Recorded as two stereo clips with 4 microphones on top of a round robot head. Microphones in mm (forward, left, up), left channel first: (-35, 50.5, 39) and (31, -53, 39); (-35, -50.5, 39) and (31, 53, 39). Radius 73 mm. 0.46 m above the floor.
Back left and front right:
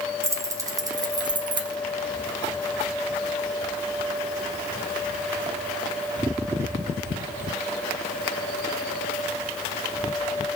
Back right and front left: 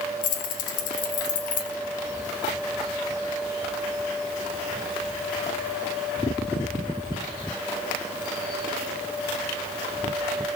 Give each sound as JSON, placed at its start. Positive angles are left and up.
{"t": 0.2, "sound": "keys jangling", "azimuth_deg": -125, "distance_m": 2.0}